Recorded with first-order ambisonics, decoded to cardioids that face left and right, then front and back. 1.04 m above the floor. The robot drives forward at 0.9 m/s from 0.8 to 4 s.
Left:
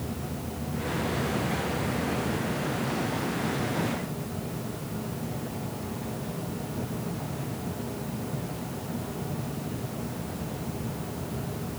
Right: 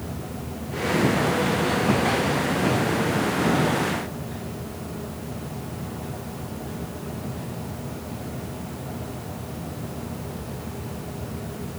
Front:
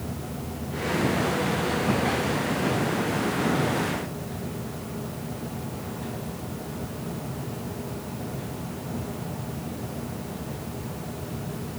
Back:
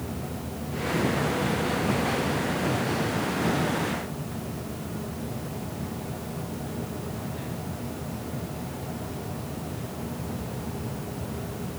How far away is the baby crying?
No baby crying in this recording.